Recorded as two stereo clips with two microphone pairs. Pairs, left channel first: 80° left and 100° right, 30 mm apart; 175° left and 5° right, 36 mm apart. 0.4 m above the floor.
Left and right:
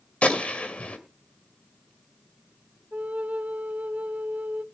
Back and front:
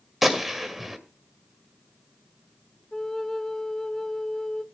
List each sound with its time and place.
0.2 s a gunshot: 80° left, 2 m
2.9 s a flute: 110° right, 0.6 m